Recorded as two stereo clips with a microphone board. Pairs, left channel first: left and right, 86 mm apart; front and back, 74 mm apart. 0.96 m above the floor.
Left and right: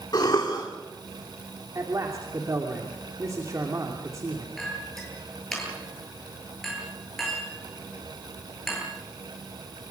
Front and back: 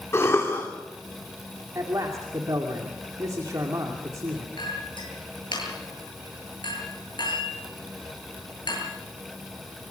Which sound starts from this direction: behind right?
A man speaking, at 1.8 s.